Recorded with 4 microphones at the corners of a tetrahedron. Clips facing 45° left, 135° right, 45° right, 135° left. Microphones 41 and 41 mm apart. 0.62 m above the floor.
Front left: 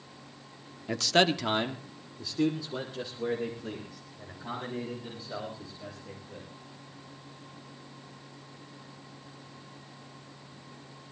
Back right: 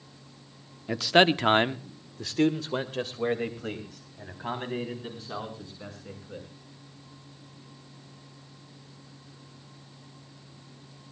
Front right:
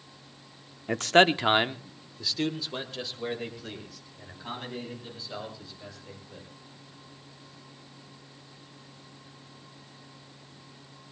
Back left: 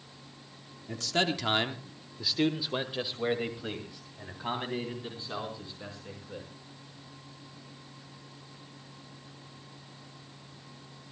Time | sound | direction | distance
0.9 | a man speaking | 50° right | 0.9 m